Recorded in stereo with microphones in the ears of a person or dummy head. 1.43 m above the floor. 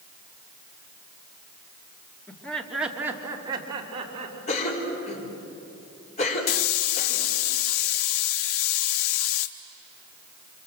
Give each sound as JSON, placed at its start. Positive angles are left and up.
{"t": 2.3, "sound": "laughter", "side_deg": 15, "distance_m": 2.5}
{"t": 4.5, "sound": "a cough", "side_deg": 40, "distance_m": 5.0}
{"t": 6.5, "sound": "a hiss", "side_deg": 70, "distance_m": 1.0}